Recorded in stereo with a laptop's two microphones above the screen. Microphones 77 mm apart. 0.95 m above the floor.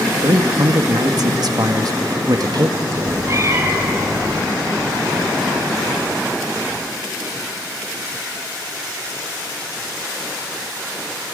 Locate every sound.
0.2 s a man speaking: 55° right (ahead or behind), 1.3 m
3.0 s a cat meowing: 40° right (ahead or behind), 2 m